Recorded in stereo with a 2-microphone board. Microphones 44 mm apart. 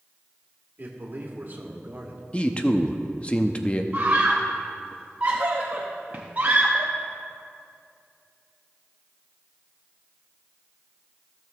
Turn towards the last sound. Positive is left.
turn(degrees=-40)  # may be behind; listen again after turning